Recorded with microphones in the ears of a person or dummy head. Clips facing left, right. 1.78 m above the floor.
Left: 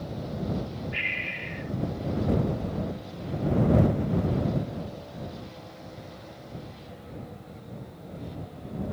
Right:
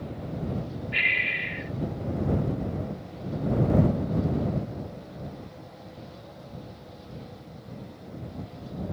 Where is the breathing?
55° right (ahead or behind).